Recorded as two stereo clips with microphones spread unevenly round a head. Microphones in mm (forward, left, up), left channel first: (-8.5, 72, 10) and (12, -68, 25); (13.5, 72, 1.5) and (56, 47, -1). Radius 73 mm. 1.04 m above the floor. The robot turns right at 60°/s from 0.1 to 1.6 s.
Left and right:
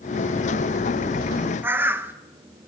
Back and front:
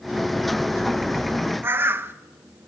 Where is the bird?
5° right, 1.1 m.